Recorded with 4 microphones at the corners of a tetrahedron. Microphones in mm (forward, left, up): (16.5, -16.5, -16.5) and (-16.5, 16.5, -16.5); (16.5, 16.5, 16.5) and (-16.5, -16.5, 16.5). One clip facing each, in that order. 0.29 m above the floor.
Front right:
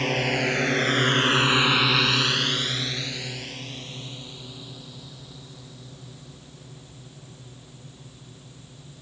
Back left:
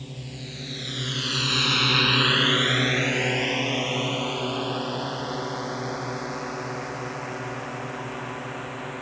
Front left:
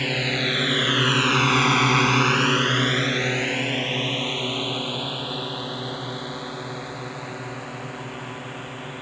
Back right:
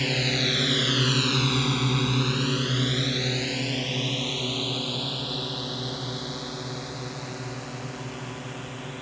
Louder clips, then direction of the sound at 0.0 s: Front right 15 dB, front left 2 dB; 30° right.